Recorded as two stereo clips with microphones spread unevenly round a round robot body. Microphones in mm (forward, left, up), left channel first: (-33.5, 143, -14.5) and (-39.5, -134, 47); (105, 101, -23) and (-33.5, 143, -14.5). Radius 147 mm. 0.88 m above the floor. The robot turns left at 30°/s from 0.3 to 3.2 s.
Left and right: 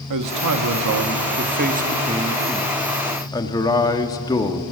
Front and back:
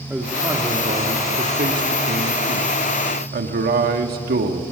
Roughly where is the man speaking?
Right.